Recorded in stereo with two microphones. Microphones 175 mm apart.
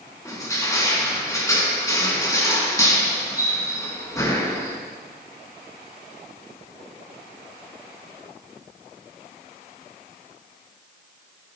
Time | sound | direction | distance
0.2 | crushing | 20° left (ahead or behind) | 2 m